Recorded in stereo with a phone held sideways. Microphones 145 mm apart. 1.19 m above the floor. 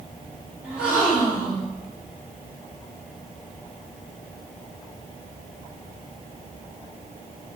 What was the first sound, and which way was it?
A gasp, 10° right (ahead or behind).